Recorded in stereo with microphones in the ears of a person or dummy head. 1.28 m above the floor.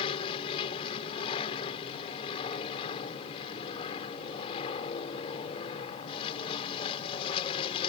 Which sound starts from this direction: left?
An aircraft, at 0.0 s.